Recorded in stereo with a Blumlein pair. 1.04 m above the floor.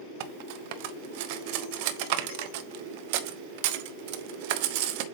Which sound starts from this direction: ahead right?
Cutlery clinking, at 0.2 s.